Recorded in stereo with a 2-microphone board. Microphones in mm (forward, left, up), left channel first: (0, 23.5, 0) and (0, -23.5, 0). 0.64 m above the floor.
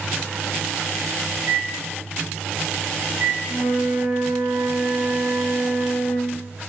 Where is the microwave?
50° right (ahead or behind), 2.5 m.